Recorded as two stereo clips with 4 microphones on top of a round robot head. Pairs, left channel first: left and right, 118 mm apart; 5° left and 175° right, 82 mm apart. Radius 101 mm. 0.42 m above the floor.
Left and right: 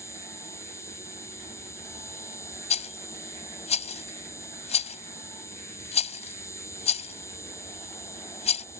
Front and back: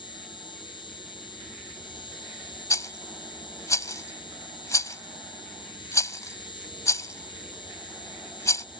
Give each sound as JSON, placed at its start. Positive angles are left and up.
{"t": 0.0, "sound": "an insect", "azimuth_deg": 25}
{"t": 2.7, "sound": "a rattle", "azimuth_deg": 55}